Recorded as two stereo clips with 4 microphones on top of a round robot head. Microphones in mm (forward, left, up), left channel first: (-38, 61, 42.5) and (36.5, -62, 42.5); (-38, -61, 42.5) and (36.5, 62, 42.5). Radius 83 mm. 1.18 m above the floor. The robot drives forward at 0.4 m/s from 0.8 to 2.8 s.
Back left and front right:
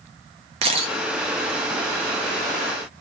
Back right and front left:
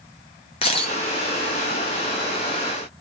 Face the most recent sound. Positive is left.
turn(degrees=-155)